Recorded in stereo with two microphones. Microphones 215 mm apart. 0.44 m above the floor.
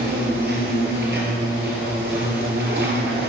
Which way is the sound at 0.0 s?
50° right (ahead or behind).